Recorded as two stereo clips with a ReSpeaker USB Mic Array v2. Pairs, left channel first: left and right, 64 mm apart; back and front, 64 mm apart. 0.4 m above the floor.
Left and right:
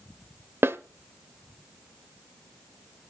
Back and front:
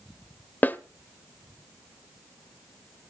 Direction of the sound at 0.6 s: 130° right.